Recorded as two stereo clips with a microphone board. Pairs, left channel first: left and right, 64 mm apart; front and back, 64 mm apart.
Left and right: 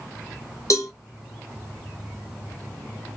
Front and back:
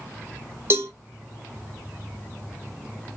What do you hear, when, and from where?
0.7 s a cowbell: 125° left, 1.4 m